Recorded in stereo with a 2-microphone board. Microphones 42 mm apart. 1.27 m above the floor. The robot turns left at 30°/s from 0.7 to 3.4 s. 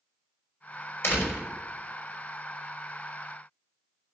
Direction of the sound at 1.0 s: 75° left (ahead or behind).